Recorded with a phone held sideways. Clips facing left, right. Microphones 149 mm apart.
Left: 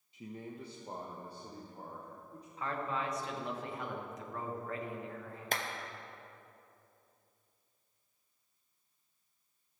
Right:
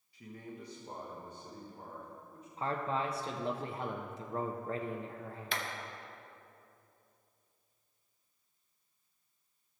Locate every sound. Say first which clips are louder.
0.1 s a man speaking: left 2 dB; 20° left (ahead or behind), 0.8 m; by 2.5 s 35° left (ahead or behind), 1.7 m
2.6 s a man speaking: right 3 dB; 30° right (ahead or behind), 0.7 m
5.5 s a clap: left 2 dB; 45° left (ahead or behind), 0.9 m